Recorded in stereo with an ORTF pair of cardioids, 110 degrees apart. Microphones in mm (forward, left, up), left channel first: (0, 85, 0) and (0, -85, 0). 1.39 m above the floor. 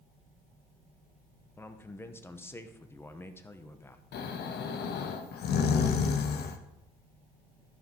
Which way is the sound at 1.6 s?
15° left.